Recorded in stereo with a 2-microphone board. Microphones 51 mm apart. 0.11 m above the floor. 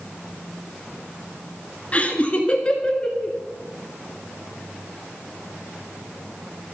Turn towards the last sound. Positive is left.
turn(degrees=15)  # may be behind; listen again after turning